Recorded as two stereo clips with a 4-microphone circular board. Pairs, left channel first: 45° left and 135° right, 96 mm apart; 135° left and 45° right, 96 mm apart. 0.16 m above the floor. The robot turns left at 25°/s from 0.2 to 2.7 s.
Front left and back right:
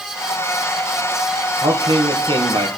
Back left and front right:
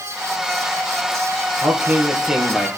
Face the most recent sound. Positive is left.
turn(degrees=-135)